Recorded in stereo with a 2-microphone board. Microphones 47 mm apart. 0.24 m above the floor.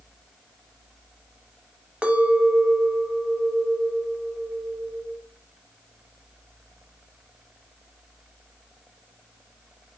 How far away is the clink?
About 0.5 m.